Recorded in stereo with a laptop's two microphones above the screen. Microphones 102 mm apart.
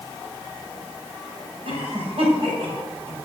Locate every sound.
1.6 s a cough: 65° right (ahead or behind), 7 m